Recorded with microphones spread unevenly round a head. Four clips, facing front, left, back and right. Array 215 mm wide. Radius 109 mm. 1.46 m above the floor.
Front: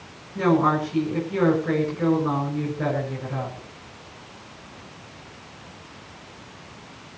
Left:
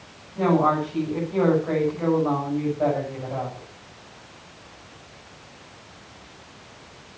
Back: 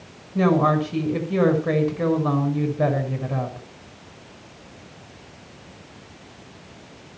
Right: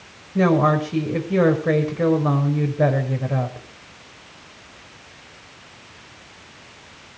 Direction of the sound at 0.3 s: 115° right.